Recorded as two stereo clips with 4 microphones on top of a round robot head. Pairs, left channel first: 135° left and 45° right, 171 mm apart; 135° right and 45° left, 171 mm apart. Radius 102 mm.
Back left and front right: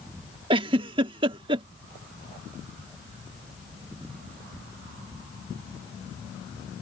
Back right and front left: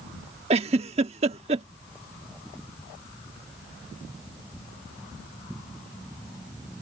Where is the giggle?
5° left.